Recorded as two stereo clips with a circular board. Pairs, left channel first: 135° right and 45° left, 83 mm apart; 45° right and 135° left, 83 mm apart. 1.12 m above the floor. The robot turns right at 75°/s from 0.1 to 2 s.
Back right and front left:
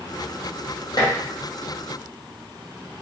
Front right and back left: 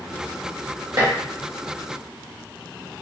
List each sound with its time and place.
1.0 s dishes clattering: 175° right, 0.9 m; by 1.1 s 160° right, 0.9 m